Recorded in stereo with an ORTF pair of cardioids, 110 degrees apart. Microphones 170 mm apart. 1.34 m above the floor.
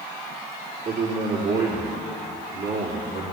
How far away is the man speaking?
About 4 m.